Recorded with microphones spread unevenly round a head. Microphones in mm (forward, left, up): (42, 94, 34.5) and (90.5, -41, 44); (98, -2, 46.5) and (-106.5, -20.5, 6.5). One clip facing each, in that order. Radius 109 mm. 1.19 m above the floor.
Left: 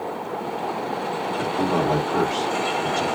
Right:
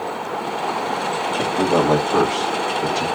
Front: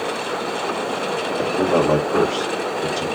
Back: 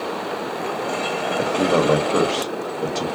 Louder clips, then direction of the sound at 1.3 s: Right 5 dB, front 1 dB; 110° right.